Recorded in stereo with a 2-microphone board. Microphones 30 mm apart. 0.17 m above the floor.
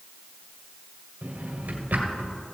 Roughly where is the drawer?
Right.